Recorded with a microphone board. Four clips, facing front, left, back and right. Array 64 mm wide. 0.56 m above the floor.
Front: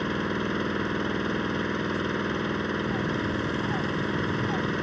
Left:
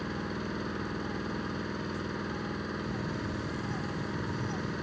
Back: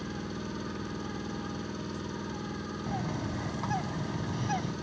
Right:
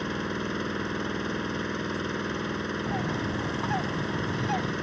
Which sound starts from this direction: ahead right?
An engine running, at 0.0 s.